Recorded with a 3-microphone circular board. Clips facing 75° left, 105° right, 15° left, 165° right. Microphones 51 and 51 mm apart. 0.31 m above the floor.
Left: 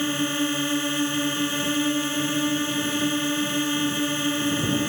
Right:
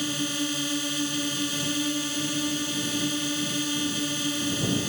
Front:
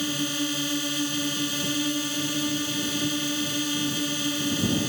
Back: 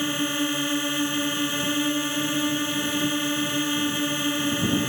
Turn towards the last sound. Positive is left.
turn(degrees=130)